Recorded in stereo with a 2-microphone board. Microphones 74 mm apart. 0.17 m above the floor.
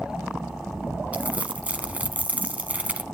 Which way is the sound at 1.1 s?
20° right (ahead or behind).